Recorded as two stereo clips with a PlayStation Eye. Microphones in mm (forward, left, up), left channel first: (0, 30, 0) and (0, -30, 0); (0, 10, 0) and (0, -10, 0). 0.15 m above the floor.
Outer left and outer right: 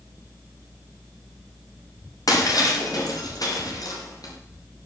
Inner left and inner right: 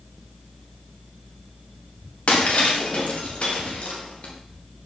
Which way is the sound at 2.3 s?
90° left.